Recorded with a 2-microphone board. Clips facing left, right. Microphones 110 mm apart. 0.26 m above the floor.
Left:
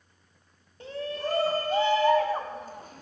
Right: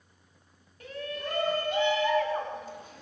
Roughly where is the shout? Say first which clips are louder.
Left 4 dB; left.